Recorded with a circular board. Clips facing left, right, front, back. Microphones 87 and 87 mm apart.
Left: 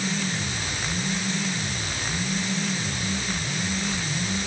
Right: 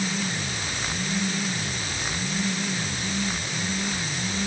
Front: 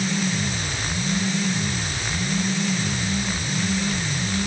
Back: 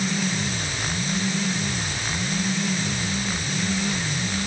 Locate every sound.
Only background noise.